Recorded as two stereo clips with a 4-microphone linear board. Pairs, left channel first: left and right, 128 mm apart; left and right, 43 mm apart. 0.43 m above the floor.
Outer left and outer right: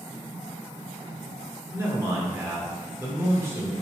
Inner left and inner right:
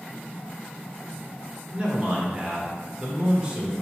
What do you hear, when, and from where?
1.7 s a man speaking: 20° right (ahead or behind), 1.1 m